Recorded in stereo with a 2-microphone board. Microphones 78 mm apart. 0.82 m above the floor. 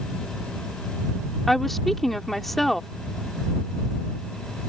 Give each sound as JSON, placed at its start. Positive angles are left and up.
{"t": 1.5, "sound": "a woman speaking", "side_deg": 5}